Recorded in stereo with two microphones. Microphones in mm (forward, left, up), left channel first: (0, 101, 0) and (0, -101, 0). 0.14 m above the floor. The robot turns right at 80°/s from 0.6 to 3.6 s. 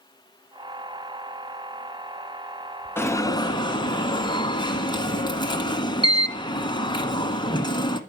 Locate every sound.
3.0 s an alarm: 10° left (ahead or behind), 1.0 m; by 8.0 s 20° left (ahead or behind), 1.0 m